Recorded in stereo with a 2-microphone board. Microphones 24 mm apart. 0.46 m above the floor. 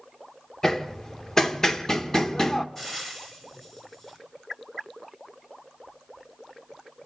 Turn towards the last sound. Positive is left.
turn(degrees=25)  # may be behind; listen again after turning